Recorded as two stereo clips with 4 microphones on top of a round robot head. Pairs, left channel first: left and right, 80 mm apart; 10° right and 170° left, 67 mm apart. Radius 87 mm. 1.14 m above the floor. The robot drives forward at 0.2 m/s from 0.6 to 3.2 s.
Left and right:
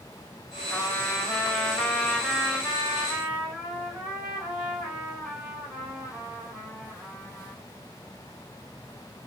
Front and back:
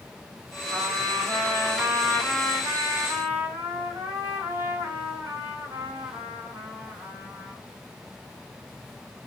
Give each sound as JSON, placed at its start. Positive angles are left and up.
{"t": 0.7, "sound": "a trumpet", "azimuth_deg": 170, "distance_m": 1.0}